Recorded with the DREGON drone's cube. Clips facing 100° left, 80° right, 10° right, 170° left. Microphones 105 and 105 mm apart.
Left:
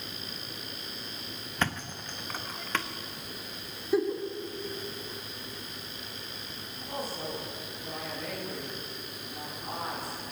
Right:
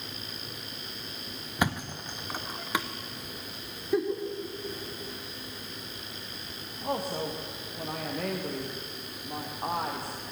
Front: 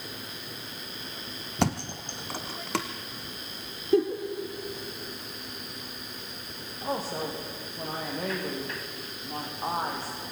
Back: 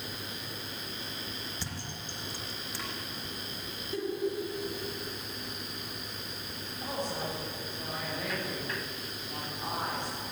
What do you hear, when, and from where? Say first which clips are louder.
1.6 s a thud: right 3 dB, front 13 dB; straight ahead, 1.6 m
3.9 s a giggle: left 1 dB, front 11 dB; 15° left, 3 m
6.8 s a woman speaking: right 5 dB, front 4 dB; 65° right, 6.5 m